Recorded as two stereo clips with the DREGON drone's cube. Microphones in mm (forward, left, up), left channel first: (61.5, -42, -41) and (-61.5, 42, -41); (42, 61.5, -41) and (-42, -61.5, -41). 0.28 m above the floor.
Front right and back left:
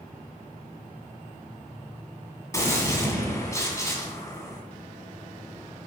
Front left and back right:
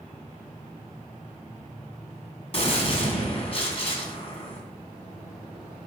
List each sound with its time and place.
2.5 s a gunshot: 25° left, 2 m